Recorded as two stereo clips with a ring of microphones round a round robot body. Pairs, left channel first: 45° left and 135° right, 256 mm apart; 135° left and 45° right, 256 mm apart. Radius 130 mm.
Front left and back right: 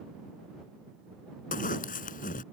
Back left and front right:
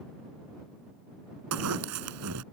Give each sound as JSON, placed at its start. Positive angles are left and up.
{"t": 1.5, "sound": "a zipper", "azimuth_deg": -15}